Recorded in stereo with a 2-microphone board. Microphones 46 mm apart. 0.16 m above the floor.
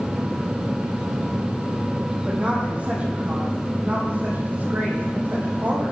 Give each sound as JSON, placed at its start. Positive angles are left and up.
{"t": 2.2, "sound": "a woman speaking", "side_deg": -30, "distance_m": 6.0}